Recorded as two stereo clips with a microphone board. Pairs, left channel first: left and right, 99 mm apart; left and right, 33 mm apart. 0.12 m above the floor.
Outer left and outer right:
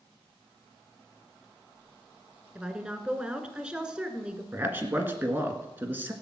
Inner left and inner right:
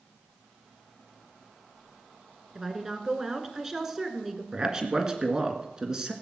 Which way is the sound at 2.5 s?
10° right (ahead or behind).